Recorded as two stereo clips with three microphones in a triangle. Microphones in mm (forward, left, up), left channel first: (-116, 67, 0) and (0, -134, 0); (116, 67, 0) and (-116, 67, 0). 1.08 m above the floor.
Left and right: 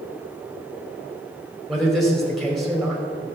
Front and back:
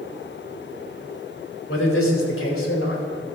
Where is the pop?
I don't hear a pop.